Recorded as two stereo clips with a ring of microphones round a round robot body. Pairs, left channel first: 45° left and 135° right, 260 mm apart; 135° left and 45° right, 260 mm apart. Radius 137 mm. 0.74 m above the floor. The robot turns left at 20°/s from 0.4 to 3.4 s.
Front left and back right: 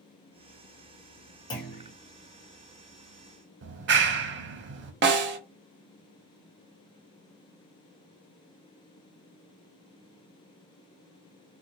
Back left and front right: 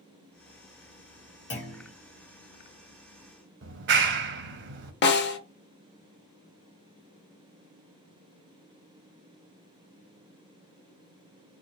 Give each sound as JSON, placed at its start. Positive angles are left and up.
{"t": 1.5, "sound": "a clunk", "azimuth_deg": 110, "distance_m": 1.3}
{"t": 3.6, "sound": "a clap", "azimuth_deg": -90, "distance_m": 0.6}
{"t": 5.0, "sound": "a snare drum", "azimuth_deg": 180, "distance_m": 0.7}